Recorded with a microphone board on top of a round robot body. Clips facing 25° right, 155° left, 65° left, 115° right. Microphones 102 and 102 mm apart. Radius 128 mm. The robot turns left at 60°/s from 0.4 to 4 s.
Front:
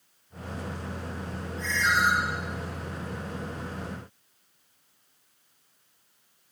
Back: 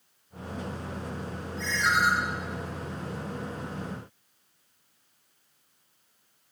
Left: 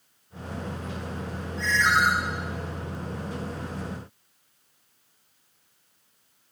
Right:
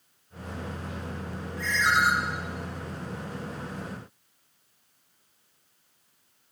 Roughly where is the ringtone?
Behind left.